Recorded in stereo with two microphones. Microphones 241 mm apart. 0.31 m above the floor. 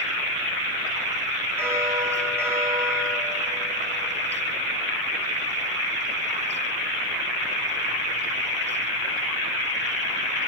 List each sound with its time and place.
1.6 s a bell: 10° right (ahead or behind), 4.5 m